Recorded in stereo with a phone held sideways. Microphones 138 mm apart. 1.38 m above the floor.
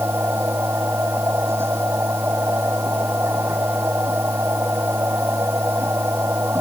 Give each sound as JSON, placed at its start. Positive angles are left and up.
{"t": 0.0, "sound": "a machine running", "side_deg": -15}